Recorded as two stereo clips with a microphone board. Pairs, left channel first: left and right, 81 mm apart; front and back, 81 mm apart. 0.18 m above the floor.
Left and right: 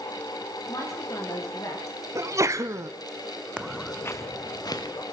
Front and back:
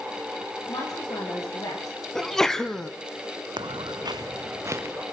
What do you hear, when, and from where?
0.7 s a woman speaking: 45° left, 10 m; by 2.0 s 40° left, 10.5 m
2.1 s a sneeze: 80° right, 1.4 m
3.6 s footsteps: 165° right, 0.6 m; by 5.0 s 120° left, 1.8 m